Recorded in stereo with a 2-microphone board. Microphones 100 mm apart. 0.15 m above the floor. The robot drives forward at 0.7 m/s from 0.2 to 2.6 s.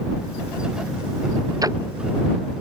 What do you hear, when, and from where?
1.6 s ticking: 35° right (ahead or behind)